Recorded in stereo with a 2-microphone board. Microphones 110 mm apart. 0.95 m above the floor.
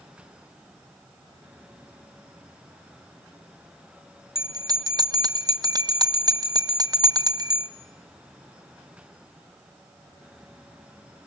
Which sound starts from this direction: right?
A bell, at 4.3 s.